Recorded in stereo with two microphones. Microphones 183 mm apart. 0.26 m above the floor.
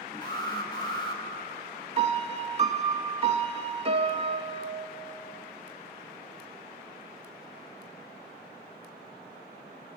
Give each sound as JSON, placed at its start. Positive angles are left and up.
{"t": 0.2, "sound": "an alarm", "side_deg": 25, "distance_m": 1.9}
{"t": 2.0, "sound": "a piano", "side_deg": -35, "distance_m": 0.7}